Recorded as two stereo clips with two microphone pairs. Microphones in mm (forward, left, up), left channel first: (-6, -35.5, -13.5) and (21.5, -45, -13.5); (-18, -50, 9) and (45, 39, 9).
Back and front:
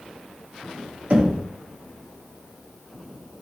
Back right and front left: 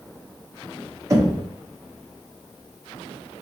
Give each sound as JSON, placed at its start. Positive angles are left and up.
{"t": 1.1, "sound": "knocking", "azimuth_deg": 0, "distance_m": 0.8}